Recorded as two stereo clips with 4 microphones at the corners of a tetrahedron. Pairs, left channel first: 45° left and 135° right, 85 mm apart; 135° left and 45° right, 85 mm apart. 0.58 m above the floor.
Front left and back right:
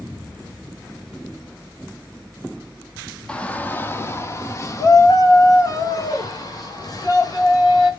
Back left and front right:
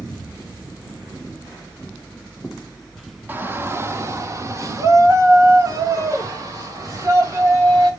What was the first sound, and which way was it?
A shout, 20° right.